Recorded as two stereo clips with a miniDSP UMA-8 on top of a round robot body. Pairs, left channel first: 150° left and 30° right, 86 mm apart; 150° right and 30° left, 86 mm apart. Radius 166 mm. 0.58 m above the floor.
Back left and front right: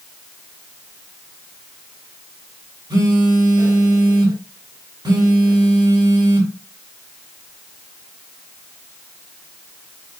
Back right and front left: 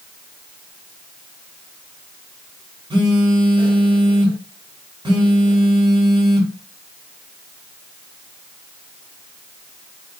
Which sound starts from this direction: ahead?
A phone buzzing, at 2.9 s.